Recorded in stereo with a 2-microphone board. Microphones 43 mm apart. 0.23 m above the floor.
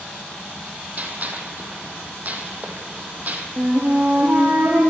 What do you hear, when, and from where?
1.0 s a gunshot: 40° right (ahead or behind), 2 m
3.6 s a flute: 50° right (ahead or behind), 3.5 m